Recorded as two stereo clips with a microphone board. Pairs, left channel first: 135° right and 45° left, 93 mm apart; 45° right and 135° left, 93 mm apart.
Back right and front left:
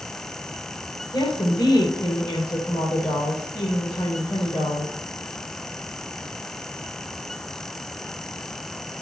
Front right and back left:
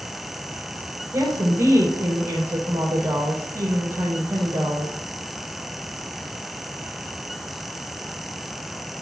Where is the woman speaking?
165° right, 3 m.